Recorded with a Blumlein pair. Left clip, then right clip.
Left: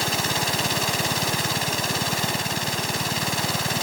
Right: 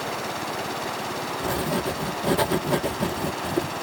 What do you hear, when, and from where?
0.0 s a machine running: 30° left
1.4 s writing: 40° right